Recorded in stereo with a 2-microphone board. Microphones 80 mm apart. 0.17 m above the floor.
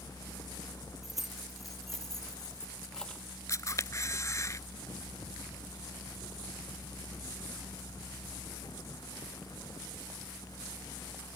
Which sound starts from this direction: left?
A camera shutter, at 3.5 s.